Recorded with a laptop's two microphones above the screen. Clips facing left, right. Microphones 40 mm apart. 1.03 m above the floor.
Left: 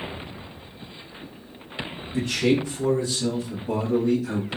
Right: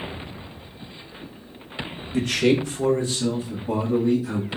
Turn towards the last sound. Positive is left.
turn(degrees=-15)  # may be behind; listen again after turning